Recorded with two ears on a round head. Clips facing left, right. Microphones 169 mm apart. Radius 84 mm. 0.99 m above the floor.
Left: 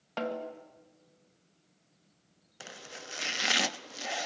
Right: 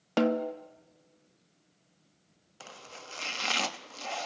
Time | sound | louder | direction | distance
0.2 | a snare drum | right 9 dB | 60° right (ahead or behind) | 1.5 m
2.6 | chopping | left 1 dB | 15° left (ahead or behind) | 0.5 m